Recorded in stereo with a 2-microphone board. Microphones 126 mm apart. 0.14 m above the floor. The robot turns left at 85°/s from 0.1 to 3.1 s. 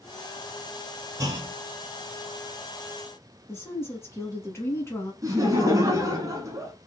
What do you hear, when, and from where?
1.2 s a clunk: 45° right, 0.6 m; by 1.5 s 75° right, 0.6 m
3.5 s a woman speaking: 20° left (ahead or behind), 1.1 m
5.2 s laughter: 25° right (ahead or behind), 1.1 m